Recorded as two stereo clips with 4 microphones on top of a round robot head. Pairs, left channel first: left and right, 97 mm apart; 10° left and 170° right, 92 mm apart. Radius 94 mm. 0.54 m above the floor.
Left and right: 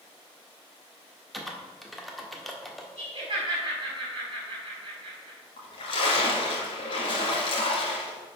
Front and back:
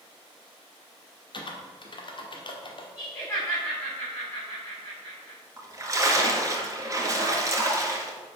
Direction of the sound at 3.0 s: 50° right.